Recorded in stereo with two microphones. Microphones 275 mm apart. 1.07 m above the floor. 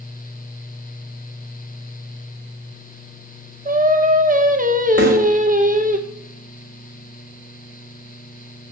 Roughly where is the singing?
Right.